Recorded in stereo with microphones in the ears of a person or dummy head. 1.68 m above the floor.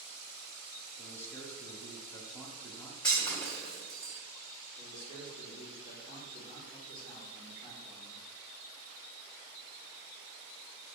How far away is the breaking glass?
About 1.5 m.